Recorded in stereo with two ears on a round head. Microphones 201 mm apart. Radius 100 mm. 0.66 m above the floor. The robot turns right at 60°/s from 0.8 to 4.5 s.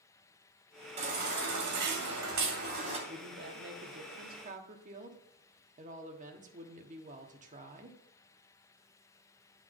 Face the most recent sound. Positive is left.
turn(degrees=-45)